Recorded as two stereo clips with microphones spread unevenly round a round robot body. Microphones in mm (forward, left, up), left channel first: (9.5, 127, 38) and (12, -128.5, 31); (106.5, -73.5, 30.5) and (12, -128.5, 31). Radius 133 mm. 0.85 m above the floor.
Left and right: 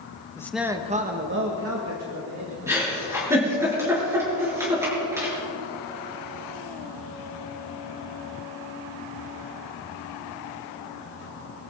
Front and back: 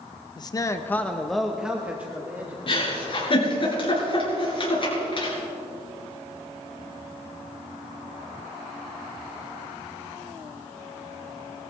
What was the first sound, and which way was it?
A man speaking, 15° left.